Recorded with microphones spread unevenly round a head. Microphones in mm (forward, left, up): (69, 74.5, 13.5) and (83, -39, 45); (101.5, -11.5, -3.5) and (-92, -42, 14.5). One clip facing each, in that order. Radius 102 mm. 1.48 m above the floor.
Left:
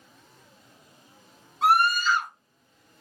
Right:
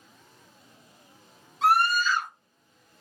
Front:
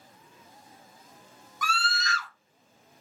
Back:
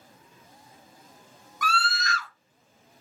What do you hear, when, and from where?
1.6 s a scream: 130° right, 1.8 m